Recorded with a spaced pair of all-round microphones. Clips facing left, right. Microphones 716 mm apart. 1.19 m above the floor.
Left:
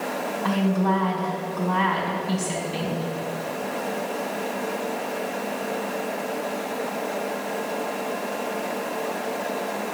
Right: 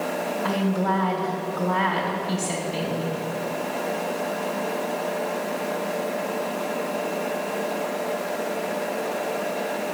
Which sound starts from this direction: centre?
A woman speaking, at 0.4 s.